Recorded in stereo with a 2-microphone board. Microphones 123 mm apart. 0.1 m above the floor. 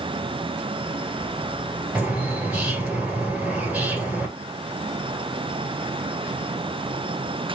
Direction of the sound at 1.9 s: 10° right (ahead or behind).